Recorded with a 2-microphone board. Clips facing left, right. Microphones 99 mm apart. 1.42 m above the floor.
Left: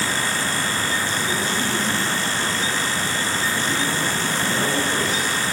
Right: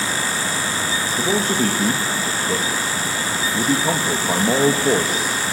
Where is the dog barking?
I don't hear a dog barking.